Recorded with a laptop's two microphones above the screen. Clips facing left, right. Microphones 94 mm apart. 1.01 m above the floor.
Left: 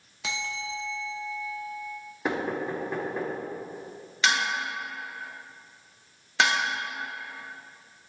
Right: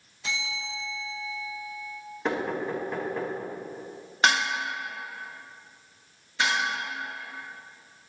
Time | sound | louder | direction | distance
0.2 | a bell | left 1 dB | 85° left | 1.0 m
2.2 | knocking | even | 10° left (ahead or behind) | 1.5 m
4.2 | dishes clattering | right 2 dB | 45° right (ahead or behind) | 0.9 m
6.4 | dishes clattering | left 3 dB | 75° left (ahead or behind) | 1.1 m